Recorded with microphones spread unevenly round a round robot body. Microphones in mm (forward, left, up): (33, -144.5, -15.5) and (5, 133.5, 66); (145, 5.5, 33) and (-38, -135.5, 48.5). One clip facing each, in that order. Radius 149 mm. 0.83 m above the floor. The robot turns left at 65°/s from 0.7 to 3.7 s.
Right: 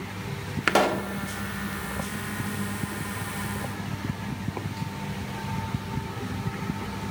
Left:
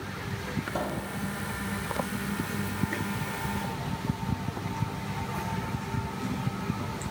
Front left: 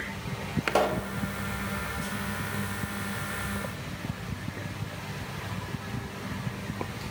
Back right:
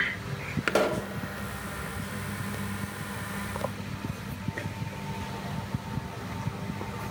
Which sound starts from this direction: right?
A pop, at 0.7 s.